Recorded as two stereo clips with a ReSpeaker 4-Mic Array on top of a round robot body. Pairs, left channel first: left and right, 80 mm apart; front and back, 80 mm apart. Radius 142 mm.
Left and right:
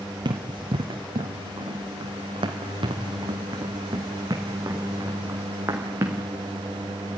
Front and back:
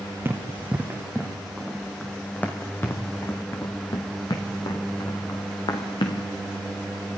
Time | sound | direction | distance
0.2 | running footsteps | 115° right | 1.7 m